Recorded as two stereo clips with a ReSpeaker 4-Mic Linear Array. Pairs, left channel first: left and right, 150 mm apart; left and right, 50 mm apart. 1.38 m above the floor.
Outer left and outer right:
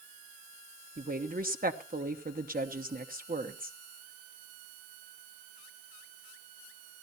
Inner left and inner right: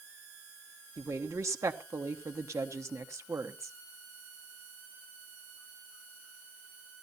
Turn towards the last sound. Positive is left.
turn(degrees=-65)  # may be behind; listen again after turning